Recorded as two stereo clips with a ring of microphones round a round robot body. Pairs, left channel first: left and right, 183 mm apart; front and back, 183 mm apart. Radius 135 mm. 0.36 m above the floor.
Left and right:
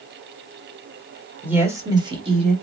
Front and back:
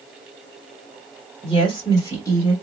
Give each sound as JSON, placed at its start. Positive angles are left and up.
{"t": 1.4, "sound": "a woman speaking", "azimuth_deg": -15, "distance_m": 1.4}